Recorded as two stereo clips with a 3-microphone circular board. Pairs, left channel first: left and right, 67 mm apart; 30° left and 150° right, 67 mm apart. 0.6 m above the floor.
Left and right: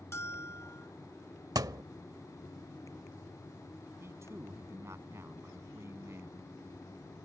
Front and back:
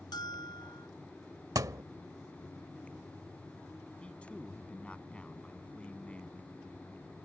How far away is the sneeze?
I don't hear a sneeze.